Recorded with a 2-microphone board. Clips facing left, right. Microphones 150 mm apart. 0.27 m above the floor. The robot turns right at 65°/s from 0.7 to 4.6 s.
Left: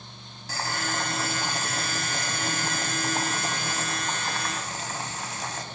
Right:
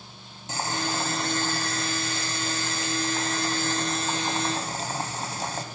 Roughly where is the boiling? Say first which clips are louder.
Right 2 dB; ahead right.